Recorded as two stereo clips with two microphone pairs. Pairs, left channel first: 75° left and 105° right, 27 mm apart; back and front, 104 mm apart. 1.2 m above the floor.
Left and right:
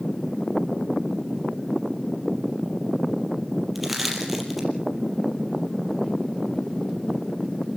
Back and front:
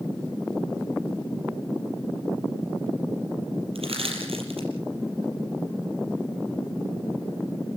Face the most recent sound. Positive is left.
turn(degrees=-20)